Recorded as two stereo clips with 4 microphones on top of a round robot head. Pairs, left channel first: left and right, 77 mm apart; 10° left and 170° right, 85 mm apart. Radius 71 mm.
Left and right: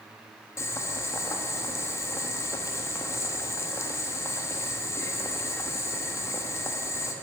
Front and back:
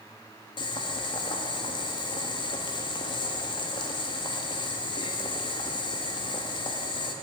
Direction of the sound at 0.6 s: 40° left.